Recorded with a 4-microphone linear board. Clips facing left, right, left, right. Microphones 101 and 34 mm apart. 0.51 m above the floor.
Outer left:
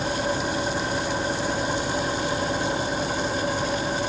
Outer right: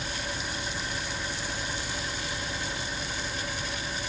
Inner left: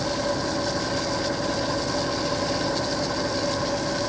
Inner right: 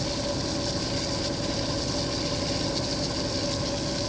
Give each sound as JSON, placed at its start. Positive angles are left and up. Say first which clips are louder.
{"t": 0.0, "sound": "an engine running", "louder": "outer left 10 dB, inner left 4 dB", "side_deg": 40}